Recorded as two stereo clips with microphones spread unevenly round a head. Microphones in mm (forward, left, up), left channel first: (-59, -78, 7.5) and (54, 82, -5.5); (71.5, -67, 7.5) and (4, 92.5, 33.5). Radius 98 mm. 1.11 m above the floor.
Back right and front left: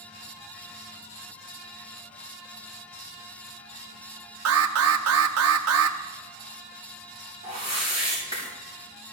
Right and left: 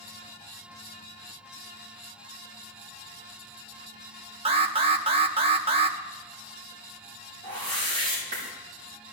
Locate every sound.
4.5 s an alarm: 60° left, 0.8 m
7.4 s a whoosh: 170° left, 7.5 m